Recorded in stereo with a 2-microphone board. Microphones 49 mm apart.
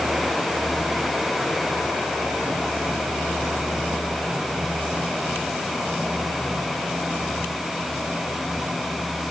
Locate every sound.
Only background noise.